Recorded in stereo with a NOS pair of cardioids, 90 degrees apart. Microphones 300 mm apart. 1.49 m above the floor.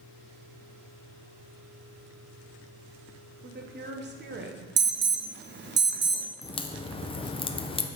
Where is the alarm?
35° right, 0.8 m.